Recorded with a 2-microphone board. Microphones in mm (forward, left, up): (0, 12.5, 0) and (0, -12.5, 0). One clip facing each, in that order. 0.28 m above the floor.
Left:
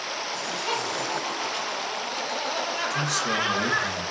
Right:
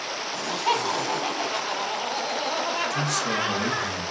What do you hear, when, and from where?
0.3 s laughter: 45° right (ahead or behind), 1.9 m; by 3.9 s 20° left (ahead or behind), 1.1 m
2.9 s a man speaking: 20° left (ahead or behind), 1.3 m